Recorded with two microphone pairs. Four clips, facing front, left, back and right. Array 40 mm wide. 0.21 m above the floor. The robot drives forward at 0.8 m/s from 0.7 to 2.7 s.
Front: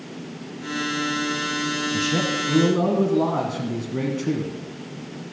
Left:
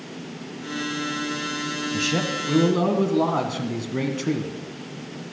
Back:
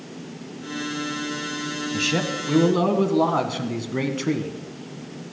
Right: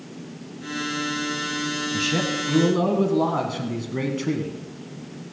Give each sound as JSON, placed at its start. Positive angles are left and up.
{"t": 1.9, "sound": "a man speaking", "azimuth_deg": -170, "distance_m": 1.1}